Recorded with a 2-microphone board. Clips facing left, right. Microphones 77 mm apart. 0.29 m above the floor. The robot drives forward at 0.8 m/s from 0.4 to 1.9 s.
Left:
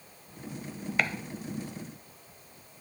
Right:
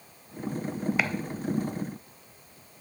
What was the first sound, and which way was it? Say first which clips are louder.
Chopping: left 1 dB; 5° right (ahead or behind).